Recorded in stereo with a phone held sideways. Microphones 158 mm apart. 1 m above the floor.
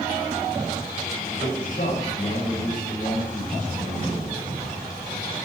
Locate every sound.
1.4 s a man speaking: 60° left (ahead or behind), 6 m